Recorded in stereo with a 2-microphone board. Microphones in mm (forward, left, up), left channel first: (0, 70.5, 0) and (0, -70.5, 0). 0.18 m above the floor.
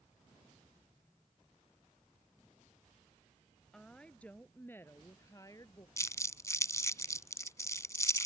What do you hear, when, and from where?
3.7 s a woman speaking: 5° left (ahead or behind); by 5.9 s 25° left (ahead or behind)
6.0 s crumpling: 20° left (ahead or behind)